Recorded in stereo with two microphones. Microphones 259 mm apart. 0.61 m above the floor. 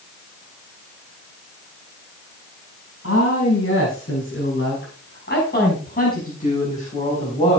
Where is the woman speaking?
55° left (ahead or behind), 6.5 m; by 7.6 s 20° left (ahead or behind), 6 m.